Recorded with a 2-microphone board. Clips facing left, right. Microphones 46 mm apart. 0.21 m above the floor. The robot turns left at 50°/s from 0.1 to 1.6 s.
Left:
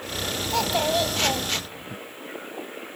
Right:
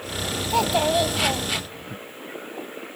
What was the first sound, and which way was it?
A child speaking, 15° right (ahead or behind).